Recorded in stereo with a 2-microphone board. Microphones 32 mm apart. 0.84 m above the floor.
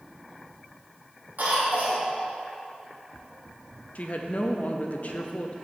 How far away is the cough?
About 1.8 m.